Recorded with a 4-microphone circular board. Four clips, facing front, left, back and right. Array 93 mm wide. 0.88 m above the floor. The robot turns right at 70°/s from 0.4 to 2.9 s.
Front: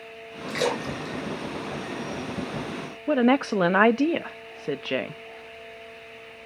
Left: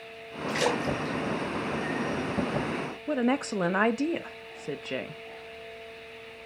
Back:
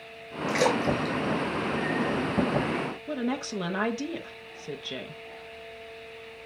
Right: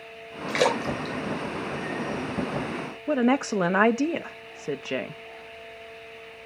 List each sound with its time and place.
0.5 s a splash: 110° right, 3 m; by 2.6 s 45° left, 3 m
3.1 s a woman speaking: 20° right, 0.5 m